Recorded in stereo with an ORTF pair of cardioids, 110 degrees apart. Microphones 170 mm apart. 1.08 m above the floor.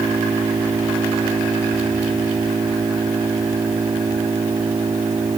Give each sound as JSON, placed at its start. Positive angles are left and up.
{"t": 0.0, "sound": "an engine running", "azimuth_deg": -25}